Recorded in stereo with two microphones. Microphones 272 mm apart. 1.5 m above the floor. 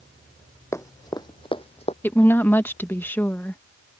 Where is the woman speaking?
5° left (ahead or behind).